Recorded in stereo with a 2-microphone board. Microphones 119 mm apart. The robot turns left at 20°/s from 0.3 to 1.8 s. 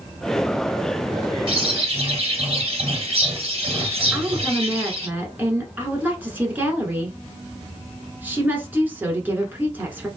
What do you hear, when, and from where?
1.5 s a bird: 50° right (ahead or behind), 2 m
4.1 s a woman speaking: 15° right (ahead or behind), 1.3 m